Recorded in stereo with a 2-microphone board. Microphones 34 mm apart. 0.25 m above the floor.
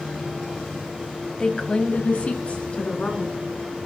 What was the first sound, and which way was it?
A woman speaking, 25° left (ahead or behind).